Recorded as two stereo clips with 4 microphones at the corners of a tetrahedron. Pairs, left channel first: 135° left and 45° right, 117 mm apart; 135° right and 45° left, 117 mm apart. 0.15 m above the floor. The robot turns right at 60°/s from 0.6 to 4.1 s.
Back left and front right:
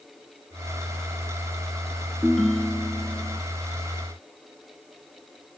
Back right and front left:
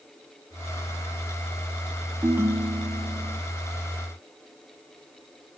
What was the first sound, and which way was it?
A ringtone, 45° left.